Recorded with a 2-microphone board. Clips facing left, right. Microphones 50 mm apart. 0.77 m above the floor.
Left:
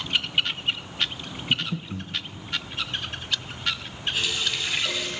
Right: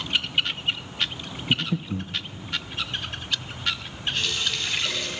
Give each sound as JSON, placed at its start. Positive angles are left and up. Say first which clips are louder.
{"t": 1.5, "sound": "breathing", "louder": "right 2 dB", "side_deg": -30, "distance_m": 1.1}
{"t": 4.1, "sound": "a running tap", "louder": "even", "side_deg": 5, "distance_m": 3.5}